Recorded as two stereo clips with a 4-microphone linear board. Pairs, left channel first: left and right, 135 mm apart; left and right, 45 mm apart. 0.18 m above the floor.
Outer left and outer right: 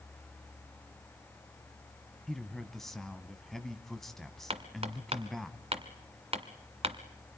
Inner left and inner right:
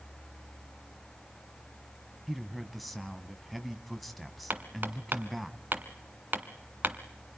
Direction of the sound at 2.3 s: Centre (ahead or behind).